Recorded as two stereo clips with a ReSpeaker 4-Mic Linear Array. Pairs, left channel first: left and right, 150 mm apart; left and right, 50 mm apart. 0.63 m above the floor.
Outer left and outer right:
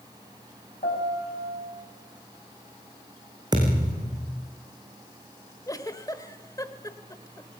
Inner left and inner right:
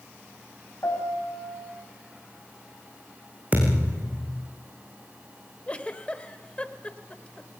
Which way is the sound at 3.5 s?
25° right (ahead or behind).